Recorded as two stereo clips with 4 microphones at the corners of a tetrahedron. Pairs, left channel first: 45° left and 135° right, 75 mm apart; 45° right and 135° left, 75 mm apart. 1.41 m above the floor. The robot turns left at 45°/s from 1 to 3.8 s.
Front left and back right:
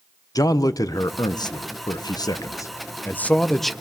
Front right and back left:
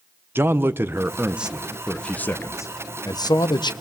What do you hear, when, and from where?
0.3 s a man speaking: 75° left, 1.0 m; by 3.7 s 45° right, 1.0 m